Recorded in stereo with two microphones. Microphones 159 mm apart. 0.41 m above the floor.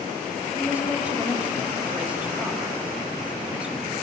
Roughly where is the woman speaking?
Centre.